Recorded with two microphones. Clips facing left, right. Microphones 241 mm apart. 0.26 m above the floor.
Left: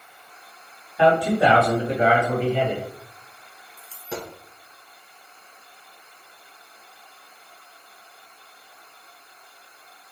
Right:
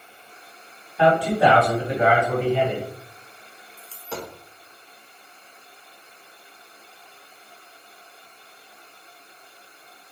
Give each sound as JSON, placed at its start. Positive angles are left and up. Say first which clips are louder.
{"t": 1.0, "sound": "a man speaking", "louder": "even", "side_deg": 20, "distance_m": 1.9}
{"t": 3.8, "sound": "a dropped coin", "louder": "left 1 dB", "side_deg": 15, "distance_m": 0.9}